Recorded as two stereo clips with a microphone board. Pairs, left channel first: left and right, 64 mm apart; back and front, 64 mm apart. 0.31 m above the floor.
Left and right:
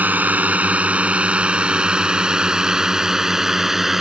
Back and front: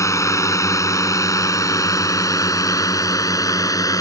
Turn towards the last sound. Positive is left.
turn(degrees=-175)